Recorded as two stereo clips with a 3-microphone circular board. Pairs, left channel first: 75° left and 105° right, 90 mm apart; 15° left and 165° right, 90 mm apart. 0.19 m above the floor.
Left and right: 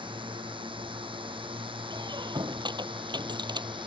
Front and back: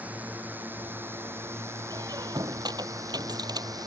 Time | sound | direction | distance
0.0 | a drone | 95° right | ?
1.9 | a squeak | 130° right | ?